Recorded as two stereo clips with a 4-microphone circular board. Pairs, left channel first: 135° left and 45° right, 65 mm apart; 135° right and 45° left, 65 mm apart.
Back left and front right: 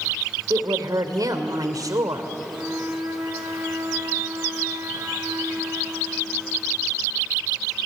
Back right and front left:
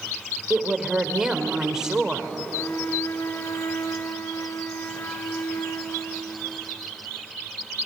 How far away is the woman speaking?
About 2.5 m.